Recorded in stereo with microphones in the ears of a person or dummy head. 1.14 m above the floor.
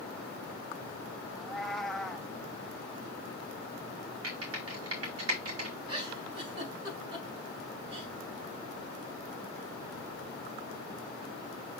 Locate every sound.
1.4 s a cat meowing: centre (ahead or behind), 0.7 m
4.2 s typing on a keyboard: 70° right (ahead or behind), 2.5 m
5.9 s a giggle: 35° right (ahead or behind), 4 m